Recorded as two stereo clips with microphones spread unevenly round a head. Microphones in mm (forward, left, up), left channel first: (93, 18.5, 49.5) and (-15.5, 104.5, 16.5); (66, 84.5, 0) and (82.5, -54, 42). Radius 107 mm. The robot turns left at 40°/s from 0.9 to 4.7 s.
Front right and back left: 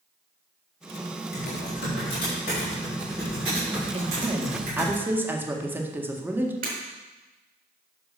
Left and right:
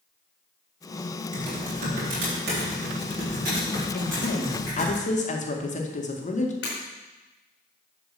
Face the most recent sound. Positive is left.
turn(degrees=130)